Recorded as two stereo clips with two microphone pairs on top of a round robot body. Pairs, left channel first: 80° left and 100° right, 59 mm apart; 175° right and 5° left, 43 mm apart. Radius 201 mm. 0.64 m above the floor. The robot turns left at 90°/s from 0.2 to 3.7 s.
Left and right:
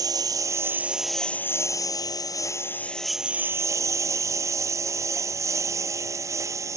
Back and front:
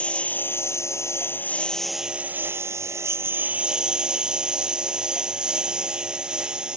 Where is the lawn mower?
110° right; by 6.8 s 65° right.